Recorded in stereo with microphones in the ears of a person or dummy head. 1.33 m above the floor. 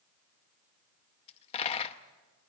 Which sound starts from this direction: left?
A dropped coin, at 1.3 s.